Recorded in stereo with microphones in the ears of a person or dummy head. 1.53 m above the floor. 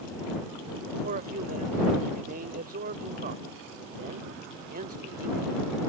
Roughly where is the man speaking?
Right.